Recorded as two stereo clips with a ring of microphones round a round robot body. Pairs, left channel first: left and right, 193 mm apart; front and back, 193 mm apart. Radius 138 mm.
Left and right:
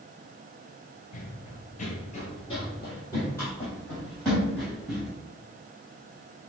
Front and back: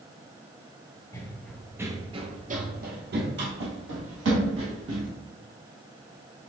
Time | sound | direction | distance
1.1 | running footsteps | 70° left | 0.8 m